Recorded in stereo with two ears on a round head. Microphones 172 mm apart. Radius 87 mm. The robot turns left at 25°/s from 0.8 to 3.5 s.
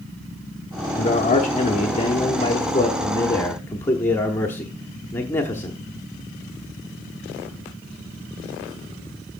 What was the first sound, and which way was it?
A man speaking, 85° left.